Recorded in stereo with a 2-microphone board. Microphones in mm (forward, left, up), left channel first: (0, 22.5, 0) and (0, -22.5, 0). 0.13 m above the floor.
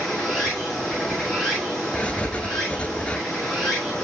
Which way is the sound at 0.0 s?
10° left (ahead or behind).